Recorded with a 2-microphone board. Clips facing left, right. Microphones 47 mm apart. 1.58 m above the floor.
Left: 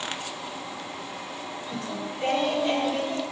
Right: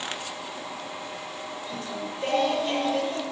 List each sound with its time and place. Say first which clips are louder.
1.7 s singing: left 1 dB; 45° left (ahead or behind), 3 m